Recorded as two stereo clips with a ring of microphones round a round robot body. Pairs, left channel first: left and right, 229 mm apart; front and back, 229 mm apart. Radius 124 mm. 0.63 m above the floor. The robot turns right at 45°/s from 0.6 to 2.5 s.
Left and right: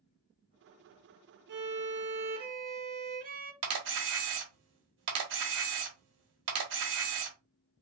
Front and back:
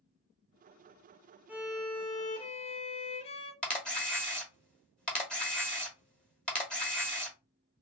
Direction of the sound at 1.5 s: 100° right.